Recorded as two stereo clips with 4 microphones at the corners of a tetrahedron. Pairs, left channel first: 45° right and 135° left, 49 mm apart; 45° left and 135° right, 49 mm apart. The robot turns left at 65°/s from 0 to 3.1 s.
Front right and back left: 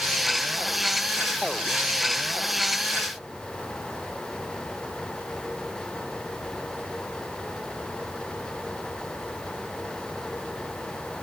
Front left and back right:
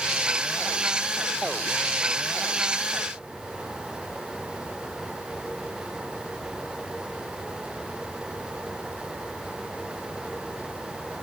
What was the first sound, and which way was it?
Only background noise.